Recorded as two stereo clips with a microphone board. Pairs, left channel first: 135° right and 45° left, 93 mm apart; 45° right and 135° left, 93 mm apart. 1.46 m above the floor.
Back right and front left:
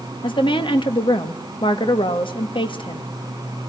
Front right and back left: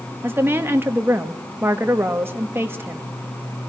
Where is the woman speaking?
160° right, 1.7 m.